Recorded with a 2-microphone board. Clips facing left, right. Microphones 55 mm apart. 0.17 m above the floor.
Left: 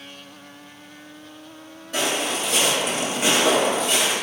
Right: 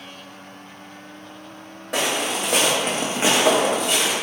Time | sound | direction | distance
1.9 | footsteps | 75° right (ahead or behind) | 1.0 m